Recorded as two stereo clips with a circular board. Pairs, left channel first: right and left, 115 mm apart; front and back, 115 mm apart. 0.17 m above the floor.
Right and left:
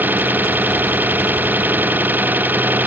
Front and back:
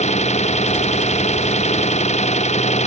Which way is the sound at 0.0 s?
15° left.